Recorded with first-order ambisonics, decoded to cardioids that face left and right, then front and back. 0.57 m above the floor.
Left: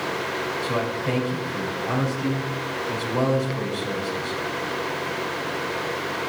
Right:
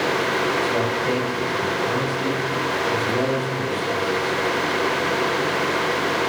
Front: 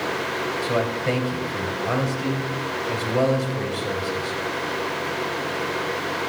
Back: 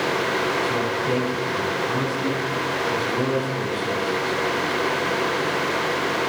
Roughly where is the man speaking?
Ahead.